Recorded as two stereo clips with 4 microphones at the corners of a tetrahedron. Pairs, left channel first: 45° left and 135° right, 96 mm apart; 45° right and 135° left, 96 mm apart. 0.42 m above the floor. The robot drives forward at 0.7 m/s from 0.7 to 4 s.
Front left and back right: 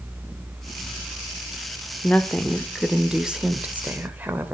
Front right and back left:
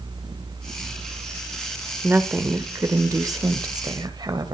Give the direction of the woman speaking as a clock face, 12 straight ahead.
9 o'clock.